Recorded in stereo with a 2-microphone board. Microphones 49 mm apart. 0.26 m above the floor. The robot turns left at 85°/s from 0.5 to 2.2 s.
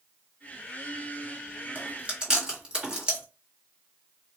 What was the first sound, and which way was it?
Chewing, 45° right (ahead or behind).